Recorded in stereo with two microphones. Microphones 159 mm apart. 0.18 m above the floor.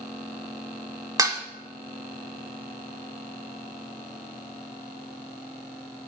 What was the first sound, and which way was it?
Dishes clattering, 25° right (ahead or behind).